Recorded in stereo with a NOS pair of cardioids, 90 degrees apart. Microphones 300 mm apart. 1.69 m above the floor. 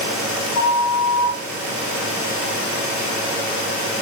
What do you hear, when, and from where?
0.6 s a flute: 65° left, 1.8 m